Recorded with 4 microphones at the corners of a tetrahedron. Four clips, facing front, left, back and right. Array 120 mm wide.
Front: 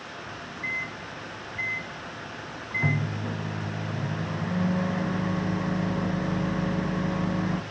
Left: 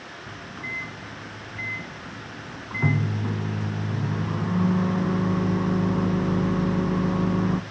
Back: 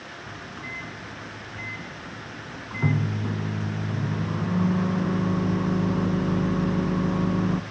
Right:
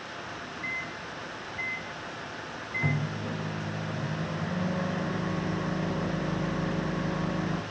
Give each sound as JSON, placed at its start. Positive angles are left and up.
{"t": 0.3, "sound": "a microwave", "azimuth_deg": 120, "distance_m": 1.1}